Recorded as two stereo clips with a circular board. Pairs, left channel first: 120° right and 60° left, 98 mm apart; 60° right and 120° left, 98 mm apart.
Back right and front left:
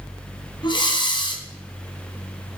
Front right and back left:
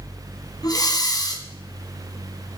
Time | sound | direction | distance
0.6 | breathing | 100° right | 1.8 m